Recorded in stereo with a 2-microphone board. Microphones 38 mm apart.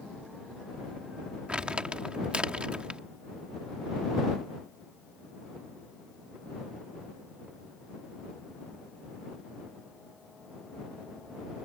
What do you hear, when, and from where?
1.5 s crumpling: 25° right (ahead or behind)